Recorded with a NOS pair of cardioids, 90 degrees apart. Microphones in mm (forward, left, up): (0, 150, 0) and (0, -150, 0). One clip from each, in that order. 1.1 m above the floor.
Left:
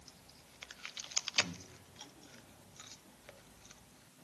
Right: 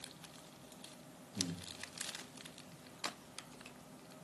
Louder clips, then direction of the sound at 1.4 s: Left 7 dB; 65° right.